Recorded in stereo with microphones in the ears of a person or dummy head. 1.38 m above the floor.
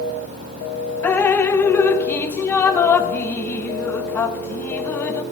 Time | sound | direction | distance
1.0 | dripping | 15° left (ahead or behind) | 0.8 m